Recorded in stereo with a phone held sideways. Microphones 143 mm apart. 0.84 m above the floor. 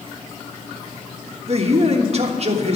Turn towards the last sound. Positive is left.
turn(degrees=-45)  # may be behind; listen again after turning